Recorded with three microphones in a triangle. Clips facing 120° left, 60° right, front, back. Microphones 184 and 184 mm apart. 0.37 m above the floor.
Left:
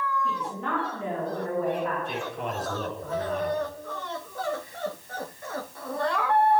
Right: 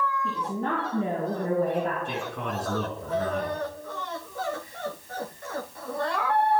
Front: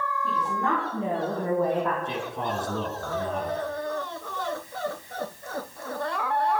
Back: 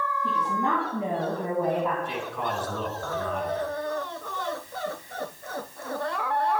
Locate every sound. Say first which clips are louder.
0.2 s a woman speaking: right 2 dB, even; 110° right, 5 m; by 1.9 s 100° right, 3.5 m
2.0 s a man speaking: even, front 1 dB; 65° right, 4.5 m